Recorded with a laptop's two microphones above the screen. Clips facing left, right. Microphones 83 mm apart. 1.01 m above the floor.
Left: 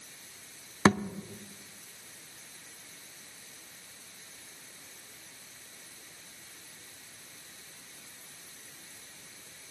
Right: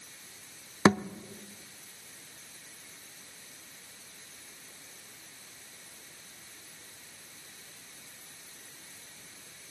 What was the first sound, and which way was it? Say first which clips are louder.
A thud: right 1 dB; 15° right (ahead or behind).